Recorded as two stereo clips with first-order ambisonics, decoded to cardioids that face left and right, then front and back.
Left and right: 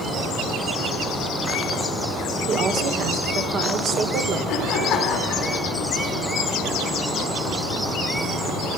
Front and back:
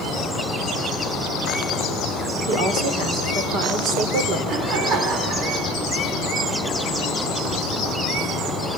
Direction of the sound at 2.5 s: 140° right.